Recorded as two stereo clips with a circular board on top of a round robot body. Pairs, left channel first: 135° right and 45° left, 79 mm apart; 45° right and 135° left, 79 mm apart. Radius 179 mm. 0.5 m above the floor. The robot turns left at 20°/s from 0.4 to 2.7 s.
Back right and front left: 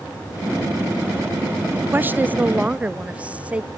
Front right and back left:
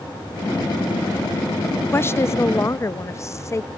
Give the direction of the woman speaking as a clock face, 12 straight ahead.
12 o'clock.